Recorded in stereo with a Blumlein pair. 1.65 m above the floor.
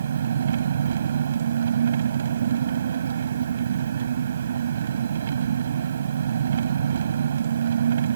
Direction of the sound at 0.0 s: 65° right.